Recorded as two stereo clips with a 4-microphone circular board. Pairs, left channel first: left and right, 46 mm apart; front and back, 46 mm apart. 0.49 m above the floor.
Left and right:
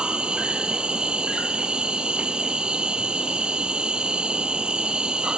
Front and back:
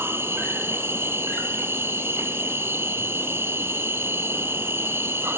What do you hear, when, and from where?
0.0 s an insect: 160° right, 1.1 m